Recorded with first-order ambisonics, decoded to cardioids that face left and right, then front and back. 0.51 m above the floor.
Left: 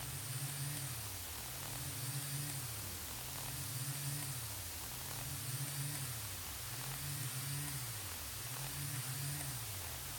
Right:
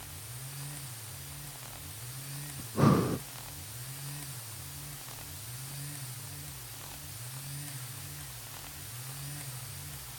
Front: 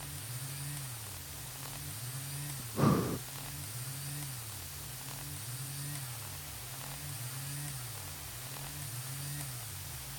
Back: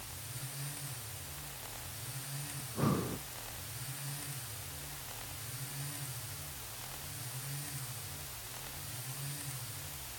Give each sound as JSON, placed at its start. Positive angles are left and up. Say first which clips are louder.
{"t": 2.6, "sound": "breathing", "louder": "right 19 dB, front 4 dB", "azimuth_deg": -75}